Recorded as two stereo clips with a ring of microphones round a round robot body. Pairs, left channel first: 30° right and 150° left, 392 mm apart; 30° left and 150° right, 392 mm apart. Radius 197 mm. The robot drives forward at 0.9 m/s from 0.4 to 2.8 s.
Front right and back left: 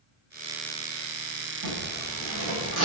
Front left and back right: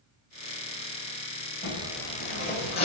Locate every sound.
1.6 s a zipper: 95° left, 6 m; by 2.9 s 105° left, 6 m